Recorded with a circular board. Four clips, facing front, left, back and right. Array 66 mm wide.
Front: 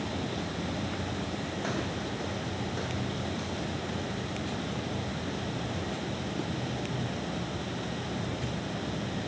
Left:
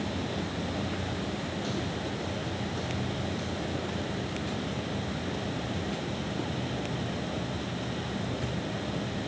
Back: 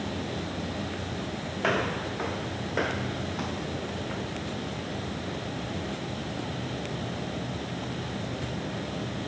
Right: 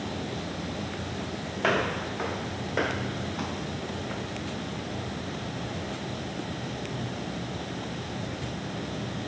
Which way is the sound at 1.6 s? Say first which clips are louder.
Right 6 dB, back 9 dB; 120° right.